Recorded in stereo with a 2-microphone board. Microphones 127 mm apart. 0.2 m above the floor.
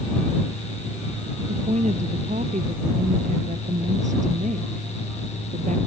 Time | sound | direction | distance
1.5 | a woman speaking | 65° right (ahead or behind) | ?